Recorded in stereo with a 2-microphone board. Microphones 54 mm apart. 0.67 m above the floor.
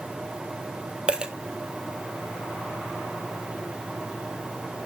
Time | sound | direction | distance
1.1 | a dropped coin | 15° right (ahead or behind) | 1.0 m